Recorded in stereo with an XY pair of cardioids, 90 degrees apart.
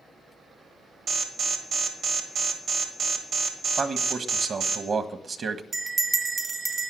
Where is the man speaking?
55° right, 1.5 m.